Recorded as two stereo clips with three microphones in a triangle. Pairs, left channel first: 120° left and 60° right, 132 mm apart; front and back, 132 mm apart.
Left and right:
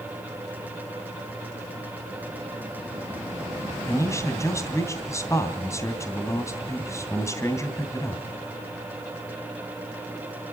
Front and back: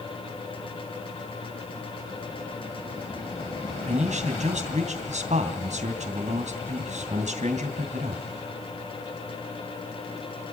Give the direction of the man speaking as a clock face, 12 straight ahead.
6 o'clock.